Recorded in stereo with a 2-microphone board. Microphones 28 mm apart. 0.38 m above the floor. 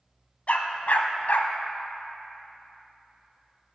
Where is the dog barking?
55° left (ahead or behind), 0.7 m; by 1.5 s 75° left (ahead or behind), 0.7 m.